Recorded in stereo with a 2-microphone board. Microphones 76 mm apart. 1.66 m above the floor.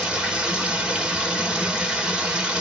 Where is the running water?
10° right (ahead or behind), 1.3 m.